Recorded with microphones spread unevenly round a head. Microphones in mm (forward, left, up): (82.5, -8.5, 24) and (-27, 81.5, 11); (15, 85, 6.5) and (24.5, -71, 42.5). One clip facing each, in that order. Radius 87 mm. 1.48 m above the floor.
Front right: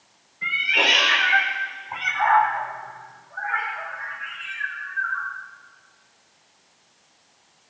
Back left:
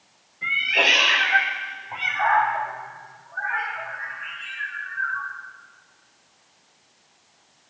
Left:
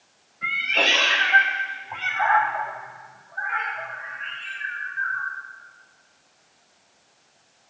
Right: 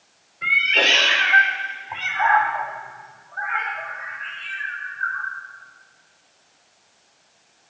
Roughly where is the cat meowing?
Behind right.